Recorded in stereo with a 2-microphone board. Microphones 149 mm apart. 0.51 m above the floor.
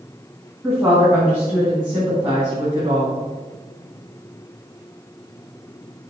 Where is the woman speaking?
20° right (ahead or behind), 5 m; by 3.1 s 40° right (ahead or behind), 4.5 m.